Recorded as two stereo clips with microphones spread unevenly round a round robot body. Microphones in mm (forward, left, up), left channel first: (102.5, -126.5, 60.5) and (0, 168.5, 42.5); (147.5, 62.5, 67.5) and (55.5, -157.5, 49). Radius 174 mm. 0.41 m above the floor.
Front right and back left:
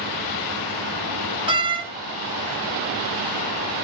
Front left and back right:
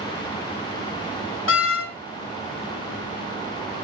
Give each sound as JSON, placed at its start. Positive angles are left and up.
{"t": 1.5, "sound": "a door slam", "azimuth_deg": 35, "distance_m": 4.0}